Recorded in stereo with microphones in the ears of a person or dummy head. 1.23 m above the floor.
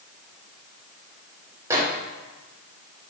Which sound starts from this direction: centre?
A microwave, at 1.7 s.